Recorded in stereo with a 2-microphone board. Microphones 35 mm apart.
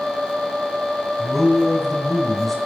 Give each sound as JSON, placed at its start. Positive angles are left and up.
{"t": 1.2, "sound": "a man speaking", "side_deg": 5, "distance_m": 3.5}